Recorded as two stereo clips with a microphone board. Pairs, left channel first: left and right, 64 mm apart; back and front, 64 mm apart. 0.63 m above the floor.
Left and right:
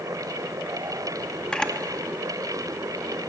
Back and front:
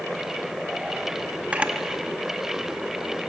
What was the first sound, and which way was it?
A camera shutter, 35° left.